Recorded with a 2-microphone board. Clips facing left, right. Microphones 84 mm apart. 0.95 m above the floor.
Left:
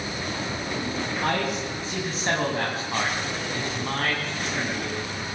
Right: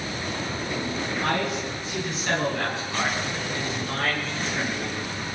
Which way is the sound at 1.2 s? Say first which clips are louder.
Even; 25° left (ahead or behind).